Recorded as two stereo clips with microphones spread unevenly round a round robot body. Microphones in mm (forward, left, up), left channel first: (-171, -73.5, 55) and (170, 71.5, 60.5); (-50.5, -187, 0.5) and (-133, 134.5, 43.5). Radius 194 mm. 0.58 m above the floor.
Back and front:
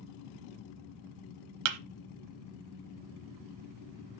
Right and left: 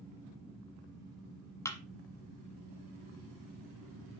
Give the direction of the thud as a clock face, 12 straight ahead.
12 o'clock.